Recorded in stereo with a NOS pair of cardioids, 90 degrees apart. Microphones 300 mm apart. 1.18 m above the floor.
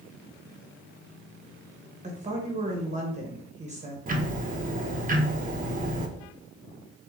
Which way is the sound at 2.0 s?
25° right.